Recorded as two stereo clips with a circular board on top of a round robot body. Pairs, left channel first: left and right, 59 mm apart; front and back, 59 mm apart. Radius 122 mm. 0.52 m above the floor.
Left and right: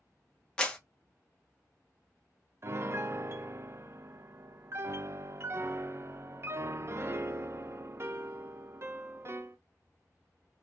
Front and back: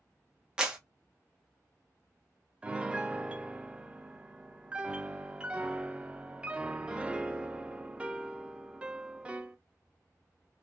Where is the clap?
130° left, 0.9 m.